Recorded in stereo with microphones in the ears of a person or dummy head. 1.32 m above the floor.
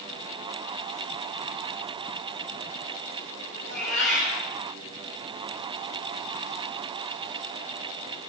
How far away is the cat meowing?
About 2.5 m.